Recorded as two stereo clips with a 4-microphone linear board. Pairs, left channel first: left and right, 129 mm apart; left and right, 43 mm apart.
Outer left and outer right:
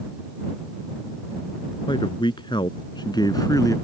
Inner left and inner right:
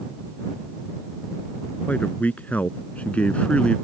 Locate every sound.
1.9 s a man speaking: 40° left (ahead or behind); by 3.8 s 25° left (ahead or behind)